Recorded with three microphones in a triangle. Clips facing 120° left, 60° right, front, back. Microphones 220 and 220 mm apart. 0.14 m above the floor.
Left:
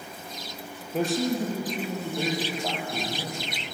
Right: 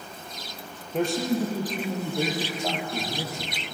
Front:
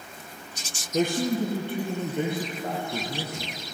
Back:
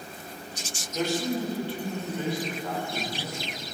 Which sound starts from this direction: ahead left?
A man speaking, at 0.9 s.